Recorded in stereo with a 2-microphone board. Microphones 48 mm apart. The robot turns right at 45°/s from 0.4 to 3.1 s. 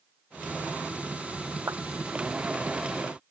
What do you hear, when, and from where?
1.7 s a clap: 85° right